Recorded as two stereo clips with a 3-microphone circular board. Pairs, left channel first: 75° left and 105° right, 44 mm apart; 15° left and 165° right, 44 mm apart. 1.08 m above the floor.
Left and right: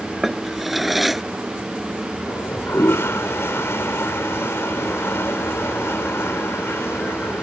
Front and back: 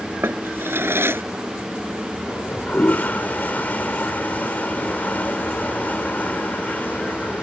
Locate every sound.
0.2 s a drawer: 165° left
2.3 s a toilet flushing: 65° left